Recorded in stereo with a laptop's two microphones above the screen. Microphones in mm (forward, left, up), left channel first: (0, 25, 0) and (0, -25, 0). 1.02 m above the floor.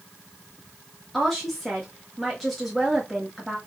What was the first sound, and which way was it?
A woman speaking, centre (ahead or behind).